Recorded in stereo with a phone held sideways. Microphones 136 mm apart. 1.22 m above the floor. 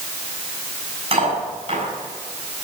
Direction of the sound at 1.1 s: 50° right (ahead or behind).